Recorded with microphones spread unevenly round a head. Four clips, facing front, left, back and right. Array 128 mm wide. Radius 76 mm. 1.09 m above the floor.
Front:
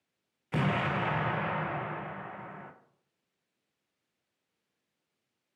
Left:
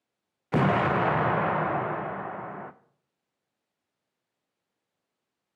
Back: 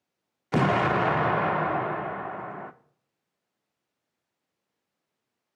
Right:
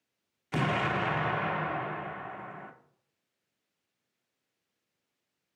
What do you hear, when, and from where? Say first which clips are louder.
0.5 s an explosion: left 6 dB, back 8 dB; 140° left, 0.5 m